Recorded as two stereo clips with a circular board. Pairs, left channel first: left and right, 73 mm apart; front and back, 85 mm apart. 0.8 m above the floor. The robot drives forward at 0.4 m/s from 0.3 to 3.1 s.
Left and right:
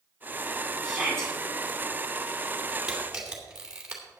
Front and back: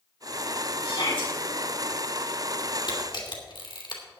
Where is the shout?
5° left, 5.5 m.